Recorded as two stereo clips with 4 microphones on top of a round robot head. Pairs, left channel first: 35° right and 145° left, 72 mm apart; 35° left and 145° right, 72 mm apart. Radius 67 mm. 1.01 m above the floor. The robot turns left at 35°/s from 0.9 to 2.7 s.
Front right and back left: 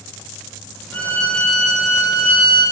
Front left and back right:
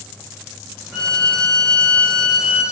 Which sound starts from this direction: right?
A violin, at 0.9 s.